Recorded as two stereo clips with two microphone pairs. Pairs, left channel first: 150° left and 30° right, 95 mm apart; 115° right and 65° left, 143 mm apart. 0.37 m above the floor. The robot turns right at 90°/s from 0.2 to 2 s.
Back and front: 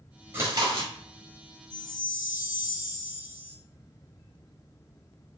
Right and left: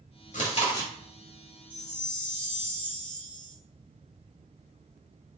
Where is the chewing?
95° right, 1.0 m; by 0.9 s 45° right, 1.0 m.